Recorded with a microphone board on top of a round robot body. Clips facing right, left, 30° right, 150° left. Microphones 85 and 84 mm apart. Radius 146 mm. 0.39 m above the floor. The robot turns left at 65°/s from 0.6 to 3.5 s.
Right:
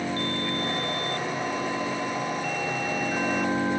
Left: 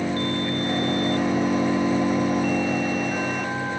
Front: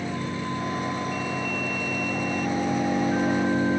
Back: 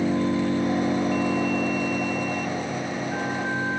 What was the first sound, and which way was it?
An engine running, 170° left.